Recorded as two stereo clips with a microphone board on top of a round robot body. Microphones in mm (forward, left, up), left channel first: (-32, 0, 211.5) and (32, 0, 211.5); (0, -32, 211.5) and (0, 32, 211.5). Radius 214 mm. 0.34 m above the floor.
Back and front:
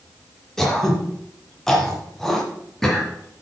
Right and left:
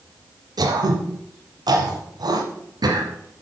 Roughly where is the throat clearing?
Left.